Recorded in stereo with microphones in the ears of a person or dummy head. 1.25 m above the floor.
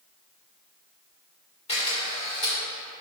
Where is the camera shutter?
30° left (ahead or behind), 3 m.